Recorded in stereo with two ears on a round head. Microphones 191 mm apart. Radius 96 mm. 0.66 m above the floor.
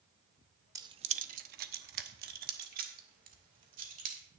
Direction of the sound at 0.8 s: 15° right (ahead or behind).